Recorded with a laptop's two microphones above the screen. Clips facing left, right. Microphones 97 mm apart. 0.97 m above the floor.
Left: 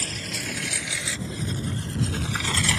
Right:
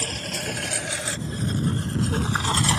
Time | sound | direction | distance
0.0 | a lawn mower | 50° right (ahead or behind) | ?